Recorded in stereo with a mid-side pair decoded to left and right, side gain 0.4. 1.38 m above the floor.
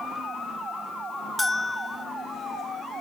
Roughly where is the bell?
Ahead.